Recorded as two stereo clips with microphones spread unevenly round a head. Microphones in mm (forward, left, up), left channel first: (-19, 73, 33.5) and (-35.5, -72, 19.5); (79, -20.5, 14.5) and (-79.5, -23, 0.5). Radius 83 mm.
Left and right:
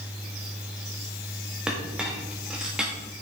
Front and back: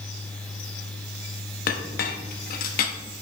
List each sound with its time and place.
1.7 s a clink: 10° right, 0.9 m